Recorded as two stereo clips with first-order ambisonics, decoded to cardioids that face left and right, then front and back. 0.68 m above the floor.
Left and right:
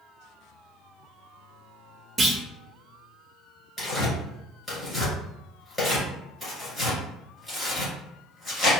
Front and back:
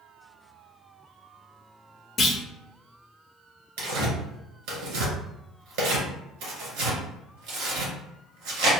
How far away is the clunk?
About 0.6 m.